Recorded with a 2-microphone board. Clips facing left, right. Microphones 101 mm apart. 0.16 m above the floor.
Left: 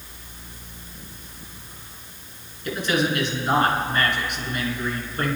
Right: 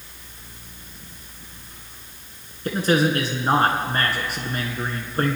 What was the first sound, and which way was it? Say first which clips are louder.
A man speaking: right 4 dB; 40° right (ahead or behind).